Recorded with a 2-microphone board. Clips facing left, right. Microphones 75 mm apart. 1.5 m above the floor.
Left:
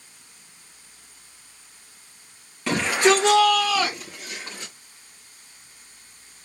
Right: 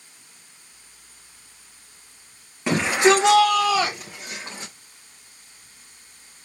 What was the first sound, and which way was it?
A shout, 20° right (ahead or behind).